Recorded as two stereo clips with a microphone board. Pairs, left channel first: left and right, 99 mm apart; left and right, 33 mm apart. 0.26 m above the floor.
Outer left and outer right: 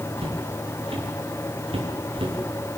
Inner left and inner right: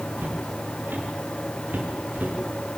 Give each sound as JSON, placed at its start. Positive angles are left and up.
{"t": 0.2, "sound": "footsteps", "side_deg": -80, "distance_m": 6.5}